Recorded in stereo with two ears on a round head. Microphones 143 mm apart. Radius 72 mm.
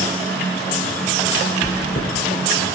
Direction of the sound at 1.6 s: 40° left (ahead or behind).